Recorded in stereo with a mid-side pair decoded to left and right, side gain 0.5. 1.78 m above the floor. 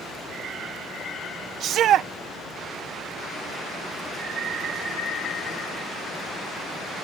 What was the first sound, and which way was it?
A shout, 65° right.